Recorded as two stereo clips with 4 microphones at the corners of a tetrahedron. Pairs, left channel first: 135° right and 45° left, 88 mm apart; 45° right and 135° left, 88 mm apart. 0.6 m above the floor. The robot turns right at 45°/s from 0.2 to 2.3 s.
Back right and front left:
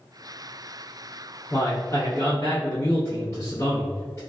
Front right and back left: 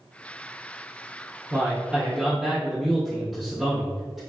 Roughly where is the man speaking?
Behind.